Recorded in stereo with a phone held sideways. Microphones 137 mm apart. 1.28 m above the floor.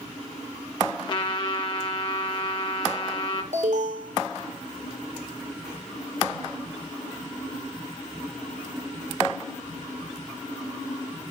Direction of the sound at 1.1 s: 35° left (ahead or behind).